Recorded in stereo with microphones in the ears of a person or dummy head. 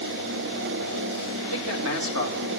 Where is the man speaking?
65° right (ahead or behind), 3 m.